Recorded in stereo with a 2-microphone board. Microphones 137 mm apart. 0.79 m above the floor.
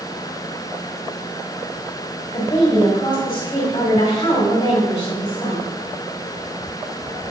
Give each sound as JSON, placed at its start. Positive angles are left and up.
{"t": 2.3, "sound": "a woman speaking", "side_deg": 35, "distance_m": 4.0}